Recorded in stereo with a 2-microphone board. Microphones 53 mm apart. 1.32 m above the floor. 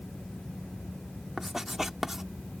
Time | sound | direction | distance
1.4 | writing | 5° right (ahead or behind) | ?